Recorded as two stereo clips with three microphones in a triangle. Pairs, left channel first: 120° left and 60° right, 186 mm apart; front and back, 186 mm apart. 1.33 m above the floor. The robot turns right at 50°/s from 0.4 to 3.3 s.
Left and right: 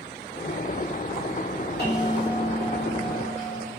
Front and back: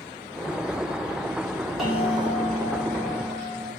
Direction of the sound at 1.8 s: 90° left.